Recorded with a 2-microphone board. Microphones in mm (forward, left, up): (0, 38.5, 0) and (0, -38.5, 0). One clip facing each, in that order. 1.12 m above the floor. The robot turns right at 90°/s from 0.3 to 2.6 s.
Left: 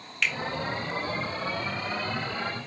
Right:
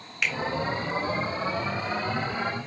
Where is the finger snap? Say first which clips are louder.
Even; 10° right (ahead or behind), 1.0 m; by 0.3 s 15° right (ahead or behind), 1.0 m.